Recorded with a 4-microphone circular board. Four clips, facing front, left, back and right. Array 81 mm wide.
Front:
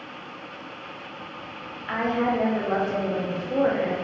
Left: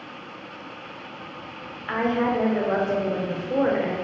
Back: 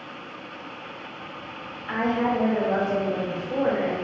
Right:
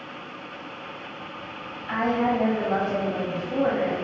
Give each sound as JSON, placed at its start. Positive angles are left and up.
{"t": 1.9, "sound": "a woman speaking", "azimuth_deg": 70, "distance_m": 0.8}